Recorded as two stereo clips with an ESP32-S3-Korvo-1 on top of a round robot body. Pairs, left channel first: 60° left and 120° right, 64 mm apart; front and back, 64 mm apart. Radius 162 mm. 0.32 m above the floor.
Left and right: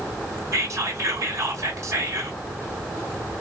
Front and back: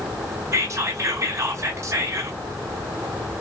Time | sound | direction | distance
0.5 | whispering | 145° right | 1.1 m